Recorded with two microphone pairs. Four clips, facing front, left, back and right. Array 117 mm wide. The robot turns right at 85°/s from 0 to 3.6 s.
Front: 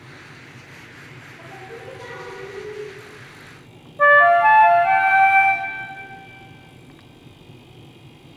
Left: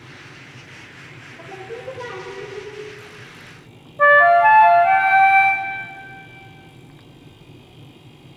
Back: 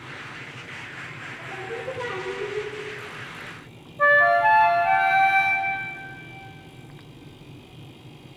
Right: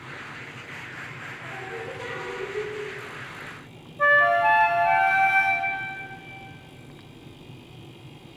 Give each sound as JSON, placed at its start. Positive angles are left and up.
{"t": 1.4, "sound": "singing", "azimuth_deg": 90, "distance_m": 3.0}
{"t": 4.0, "sound": "a flute", "azimuth_deg": 55, "distance_m": 0.8}